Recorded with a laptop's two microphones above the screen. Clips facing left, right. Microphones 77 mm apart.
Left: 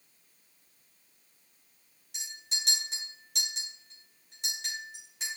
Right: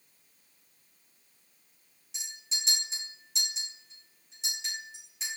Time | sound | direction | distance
2.1 | a clink | 50° left (ahead or behind) | 2 m